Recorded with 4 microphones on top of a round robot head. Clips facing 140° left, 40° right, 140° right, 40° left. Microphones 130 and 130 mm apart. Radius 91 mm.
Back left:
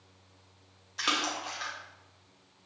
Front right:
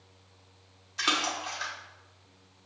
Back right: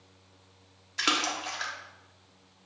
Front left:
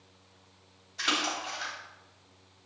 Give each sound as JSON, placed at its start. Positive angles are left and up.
{"t": 1.0, "sound": "a splash", "azimuth_deg": -130, "distance_m": 1.2}